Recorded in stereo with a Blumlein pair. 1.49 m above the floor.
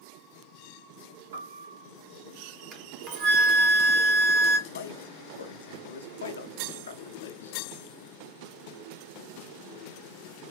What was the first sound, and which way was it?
A piano, 65° right.